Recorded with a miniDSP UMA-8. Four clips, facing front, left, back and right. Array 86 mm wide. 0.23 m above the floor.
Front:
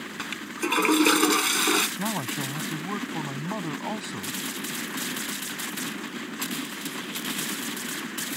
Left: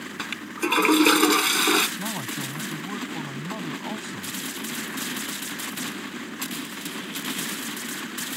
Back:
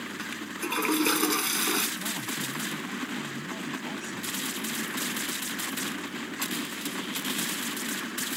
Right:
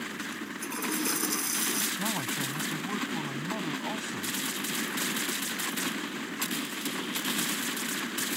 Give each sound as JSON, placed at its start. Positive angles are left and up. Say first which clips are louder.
{"t": 0.2, "sound": "a toilet flushing", "louder": "left 7 dB, front 7 dB", "azimuth_deg": 65}
{"t": 2.0, "sound": "a man speaking", "louder": "left 1 dB, front 5 dB", "azimuth_deg": 0}